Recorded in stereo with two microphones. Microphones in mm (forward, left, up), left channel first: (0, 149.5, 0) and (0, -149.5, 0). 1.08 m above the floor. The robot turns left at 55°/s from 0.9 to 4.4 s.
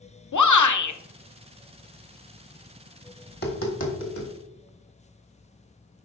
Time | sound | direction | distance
0.3 | a shout | 75° left (ahead or behind) | 0.6 m
3.3 | tapping | 25° left (ahead or behind) | 1.4 m